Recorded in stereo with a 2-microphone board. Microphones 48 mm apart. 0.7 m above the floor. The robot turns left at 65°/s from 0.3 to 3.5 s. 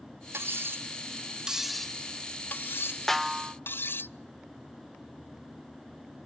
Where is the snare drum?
10° left (ahead or behind), 0.5 m; by 3.5 s 20° right (ahead or behind), 0.5 m.